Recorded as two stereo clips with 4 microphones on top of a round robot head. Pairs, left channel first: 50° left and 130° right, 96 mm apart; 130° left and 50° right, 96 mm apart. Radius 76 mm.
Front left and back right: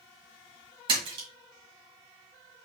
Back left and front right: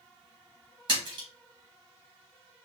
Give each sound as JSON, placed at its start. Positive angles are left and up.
{"t": 0.9, "sound": "a splash", "azimuth_deg": -95, "distance_m": 1.9}